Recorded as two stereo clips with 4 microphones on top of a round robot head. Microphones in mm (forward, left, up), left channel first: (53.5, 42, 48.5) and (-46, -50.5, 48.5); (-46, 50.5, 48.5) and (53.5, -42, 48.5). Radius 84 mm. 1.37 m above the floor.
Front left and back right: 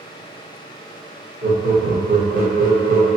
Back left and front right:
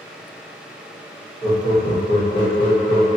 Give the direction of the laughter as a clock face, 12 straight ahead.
6 o'clock.